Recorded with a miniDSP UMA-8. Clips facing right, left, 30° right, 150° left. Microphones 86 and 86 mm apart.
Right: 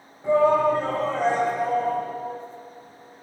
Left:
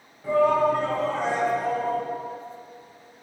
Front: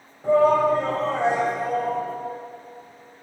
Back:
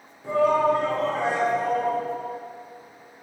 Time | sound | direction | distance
0.2 | a shout | 25° right | 1.5 m